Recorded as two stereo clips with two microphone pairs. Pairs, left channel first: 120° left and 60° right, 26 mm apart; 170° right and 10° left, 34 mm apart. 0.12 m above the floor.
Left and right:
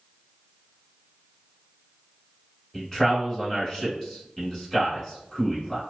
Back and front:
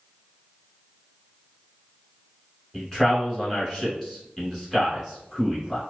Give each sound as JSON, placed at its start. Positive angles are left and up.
{"t": 2.7, "sound": "a man speaking", "azimuth_deg": 130, "distance_m": 1.3}